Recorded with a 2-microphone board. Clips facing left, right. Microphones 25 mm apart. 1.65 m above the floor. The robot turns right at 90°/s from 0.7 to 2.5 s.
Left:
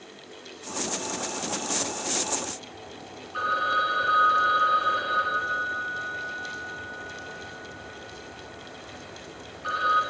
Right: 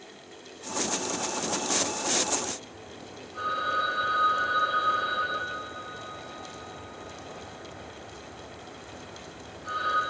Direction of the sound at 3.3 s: 55° left (ahead or behind).